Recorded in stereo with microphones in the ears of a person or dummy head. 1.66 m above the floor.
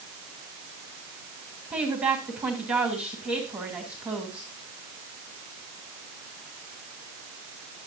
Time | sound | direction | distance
1.7 | a woman speaking | centre (ahead or behind) | 2.5 m